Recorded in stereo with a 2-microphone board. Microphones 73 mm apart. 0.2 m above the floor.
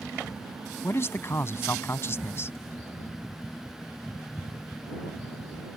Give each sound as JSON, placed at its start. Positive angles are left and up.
{"t": 0.8, "sound": "a man speaking", "side_deg": 40}